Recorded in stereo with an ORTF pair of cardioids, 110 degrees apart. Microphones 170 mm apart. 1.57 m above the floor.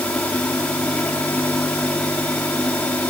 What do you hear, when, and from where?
0.0 s a fan: 10° left